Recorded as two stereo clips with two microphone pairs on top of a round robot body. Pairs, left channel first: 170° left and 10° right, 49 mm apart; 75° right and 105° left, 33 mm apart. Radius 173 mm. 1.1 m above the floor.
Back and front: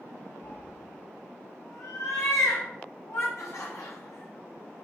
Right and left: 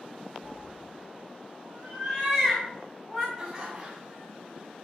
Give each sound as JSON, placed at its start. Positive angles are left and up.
{"t": 0.4, "sound": "a cat meowing", "azimuth_deg": 125, "distance_m": 2.5}
{"t": 3.4, "sound": "laughter", "azimuth_deg": 180, "distance_m": 1.6}